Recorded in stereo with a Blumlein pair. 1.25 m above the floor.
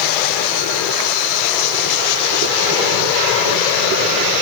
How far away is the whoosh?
No whoosh in this recording.